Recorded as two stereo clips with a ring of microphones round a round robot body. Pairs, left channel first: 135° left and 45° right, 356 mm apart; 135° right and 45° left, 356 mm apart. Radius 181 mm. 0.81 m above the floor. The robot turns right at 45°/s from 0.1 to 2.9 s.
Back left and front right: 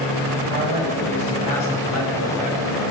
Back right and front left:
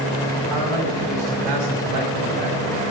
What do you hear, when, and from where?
0.5 s a man speaking: 20° left, 5 m; by 2.6 s 115° left, 5 m